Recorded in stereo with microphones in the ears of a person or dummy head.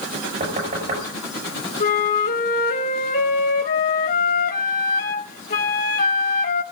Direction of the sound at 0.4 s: 45° right (ahead or behind).